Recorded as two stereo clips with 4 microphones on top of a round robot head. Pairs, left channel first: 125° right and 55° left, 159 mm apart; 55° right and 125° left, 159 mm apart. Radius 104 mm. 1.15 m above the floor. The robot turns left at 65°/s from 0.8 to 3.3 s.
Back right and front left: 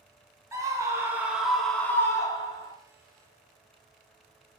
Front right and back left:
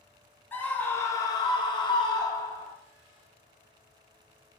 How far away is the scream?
About 0.7 m.